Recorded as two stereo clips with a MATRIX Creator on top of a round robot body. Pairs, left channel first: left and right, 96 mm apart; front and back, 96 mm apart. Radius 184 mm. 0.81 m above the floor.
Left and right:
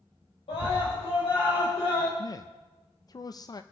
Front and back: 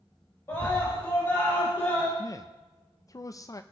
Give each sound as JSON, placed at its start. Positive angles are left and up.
{"t": 0.5, "sound": "a scream", "azimuth_deg": 65, "distance_m": 4.5}
{"t": 2.2, "sound": "a man speaking", "azimuth_deg": 50, "distance_m": 0.7}